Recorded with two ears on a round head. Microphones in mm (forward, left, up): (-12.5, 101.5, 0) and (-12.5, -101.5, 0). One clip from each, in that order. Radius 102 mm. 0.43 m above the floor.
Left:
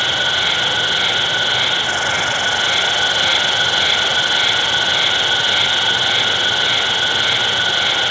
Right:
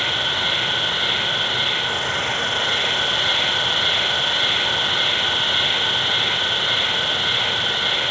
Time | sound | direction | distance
0.0 | an insect | 60° left (ahead or behind) | 2 m